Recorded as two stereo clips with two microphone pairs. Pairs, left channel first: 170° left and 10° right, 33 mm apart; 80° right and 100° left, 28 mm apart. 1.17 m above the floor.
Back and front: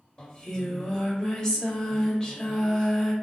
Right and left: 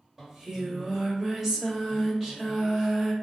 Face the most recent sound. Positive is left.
turn(degrees=150)